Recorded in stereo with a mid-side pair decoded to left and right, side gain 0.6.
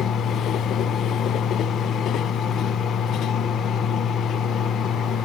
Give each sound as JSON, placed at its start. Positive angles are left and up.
{"t": 0.0, "sound": "a fan", "azimuth_deg": 45, "distance_m": 1.2}